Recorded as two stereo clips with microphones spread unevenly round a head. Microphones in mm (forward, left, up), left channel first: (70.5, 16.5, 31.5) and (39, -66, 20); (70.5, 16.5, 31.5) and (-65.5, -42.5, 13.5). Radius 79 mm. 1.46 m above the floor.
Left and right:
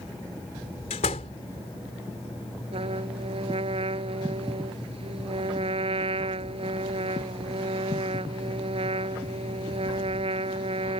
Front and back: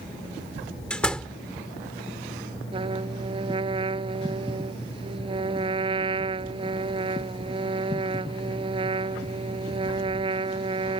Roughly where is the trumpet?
Right.